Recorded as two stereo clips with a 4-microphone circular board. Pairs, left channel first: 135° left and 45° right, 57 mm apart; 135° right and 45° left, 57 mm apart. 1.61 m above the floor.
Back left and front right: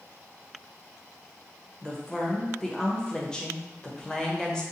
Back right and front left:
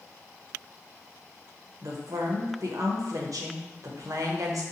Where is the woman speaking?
60° left, 0.8 m.